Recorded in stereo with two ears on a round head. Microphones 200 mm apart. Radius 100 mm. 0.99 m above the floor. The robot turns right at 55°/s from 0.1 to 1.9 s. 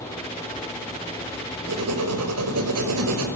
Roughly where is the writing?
Right.